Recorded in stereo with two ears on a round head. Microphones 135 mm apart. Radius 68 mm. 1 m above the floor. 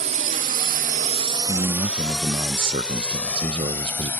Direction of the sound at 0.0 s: 50° right (ahead or behind).